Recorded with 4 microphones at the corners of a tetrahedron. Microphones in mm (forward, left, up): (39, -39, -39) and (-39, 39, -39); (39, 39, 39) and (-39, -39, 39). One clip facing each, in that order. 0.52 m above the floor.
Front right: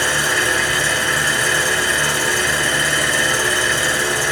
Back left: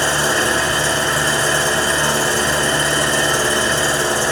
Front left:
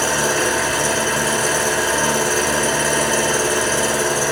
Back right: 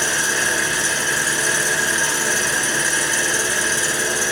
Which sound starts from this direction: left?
An engine running, at 0.0 s.